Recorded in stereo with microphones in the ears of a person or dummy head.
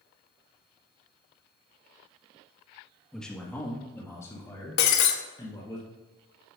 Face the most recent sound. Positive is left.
turn(degrees=55)  # may be behind; listen again after turning